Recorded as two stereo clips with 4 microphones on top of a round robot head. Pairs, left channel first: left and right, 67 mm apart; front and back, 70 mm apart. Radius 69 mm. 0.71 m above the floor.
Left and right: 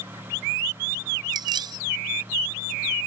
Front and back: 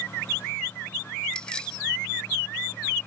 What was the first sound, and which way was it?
Keys jangling, 80° right.